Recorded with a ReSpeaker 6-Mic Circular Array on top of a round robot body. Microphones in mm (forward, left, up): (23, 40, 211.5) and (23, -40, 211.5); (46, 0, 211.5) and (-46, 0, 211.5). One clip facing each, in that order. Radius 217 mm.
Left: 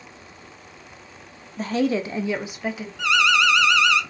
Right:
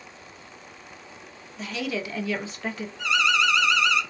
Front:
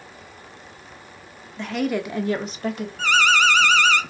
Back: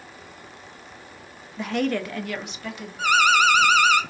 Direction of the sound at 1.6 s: 100° left.